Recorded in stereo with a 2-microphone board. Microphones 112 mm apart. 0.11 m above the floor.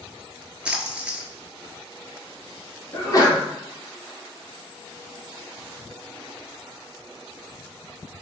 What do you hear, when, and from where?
0.7 s a splash: 10° right (ahead or behind), 0.7 m
2.9 s a sneeze: 35° left (ahead or behind), 1.4 m